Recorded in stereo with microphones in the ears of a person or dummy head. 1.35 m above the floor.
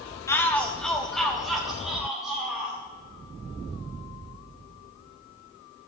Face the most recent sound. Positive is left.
turn(degrees=-5)  # may be behind; listen again after turning